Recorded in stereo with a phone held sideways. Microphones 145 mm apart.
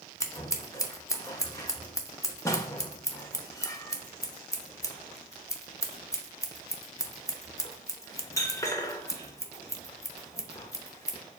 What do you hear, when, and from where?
0.2 s scissors: 20° left (ahead or behind), 0.7 m